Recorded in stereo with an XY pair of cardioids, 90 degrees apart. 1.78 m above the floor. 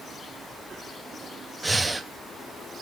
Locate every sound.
1.6 s breathing: 15° right, 0.6 m